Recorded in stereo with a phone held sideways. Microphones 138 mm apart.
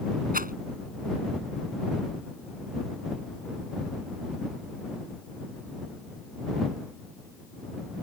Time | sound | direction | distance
0.3 | a rattle | 80° right | ?